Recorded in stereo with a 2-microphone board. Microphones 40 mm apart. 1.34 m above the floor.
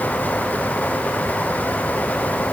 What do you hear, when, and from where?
Only background noise.